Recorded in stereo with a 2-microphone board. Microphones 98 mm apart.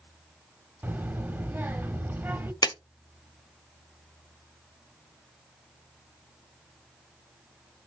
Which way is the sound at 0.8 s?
20° right (ahead or behind).